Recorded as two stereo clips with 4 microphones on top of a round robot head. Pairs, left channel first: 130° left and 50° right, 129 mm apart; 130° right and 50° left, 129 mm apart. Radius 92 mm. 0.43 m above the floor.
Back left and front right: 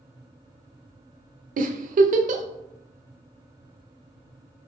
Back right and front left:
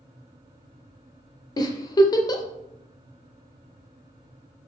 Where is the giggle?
70° right, 0.5 m.